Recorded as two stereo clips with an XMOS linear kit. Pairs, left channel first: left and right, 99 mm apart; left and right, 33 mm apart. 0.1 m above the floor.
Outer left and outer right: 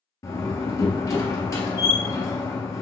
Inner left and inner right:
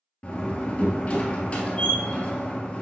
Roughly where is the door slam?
Left.